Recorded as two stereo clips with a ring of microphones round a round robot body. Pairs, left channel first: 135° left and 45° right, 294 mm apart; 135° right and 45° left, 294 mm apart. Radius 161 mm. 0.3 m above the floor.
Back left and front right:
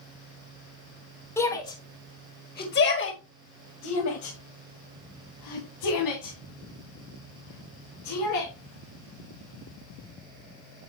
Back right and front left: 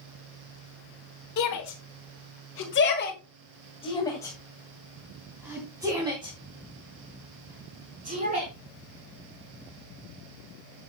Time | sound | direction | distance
1.4 | a shout | 145° right | 2.5 m